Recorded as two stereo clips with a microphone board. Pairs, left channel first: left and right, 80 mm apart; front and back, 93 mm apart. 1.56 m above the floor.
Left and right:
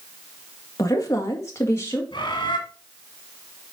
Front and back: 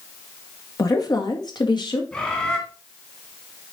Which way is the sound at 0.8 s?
45° left.